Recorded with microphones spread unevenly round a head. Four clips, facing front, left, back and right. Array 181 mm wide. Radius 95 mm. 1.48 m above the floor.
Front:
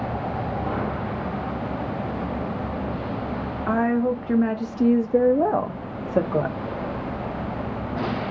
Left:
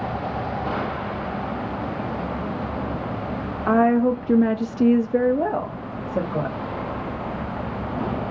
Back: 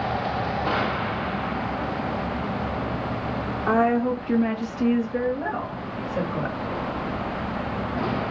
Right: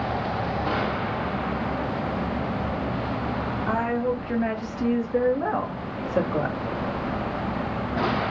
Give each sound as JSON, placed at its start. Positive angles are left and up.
{"t": 3.7, "sound": "a woman speaking", "azimuth_deg": 120, "distance_m": 1.0}